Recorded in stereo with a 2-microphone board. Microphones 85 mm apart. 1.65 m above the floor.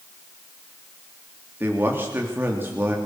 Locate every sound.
1.6 s a man speaking: 25° right (ahead or behind), 3 m